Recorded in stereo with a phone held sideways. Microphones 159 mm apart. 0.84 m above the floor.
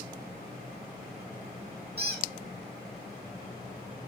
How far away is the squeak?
About 4.5 m.